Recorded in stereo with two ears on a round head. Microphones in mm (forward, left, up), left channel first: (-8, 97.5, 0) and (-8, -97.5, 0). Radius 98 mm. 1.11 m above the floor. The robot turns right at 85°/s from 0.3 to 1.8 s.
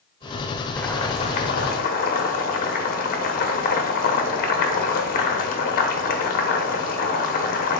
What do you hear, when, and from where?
0.8 s boiling: 5° left, 0.8 m; by 7.8 s 95° left, 0.8 m